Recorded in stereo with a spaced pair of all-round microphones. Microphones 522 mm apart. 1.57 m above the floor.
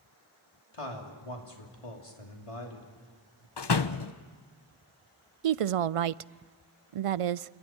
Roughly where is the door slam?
Left.